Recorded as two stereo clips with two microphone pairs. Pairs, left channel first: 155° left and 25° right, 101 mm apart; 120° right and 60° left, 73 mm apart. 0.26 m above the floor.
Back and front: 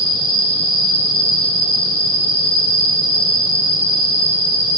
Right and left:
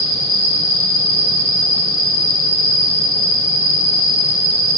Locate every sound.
0.0 s an insect: 95° left, 3 m